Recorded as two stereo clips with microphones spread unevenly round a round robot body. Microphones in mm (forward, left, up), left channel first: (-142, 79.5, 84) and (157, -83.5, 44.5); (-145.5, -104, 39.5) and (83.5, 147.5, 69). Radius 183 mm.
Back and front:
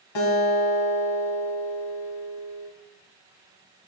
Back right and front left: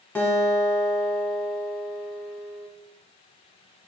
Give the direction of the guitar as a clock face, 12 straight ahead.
7 o'clock.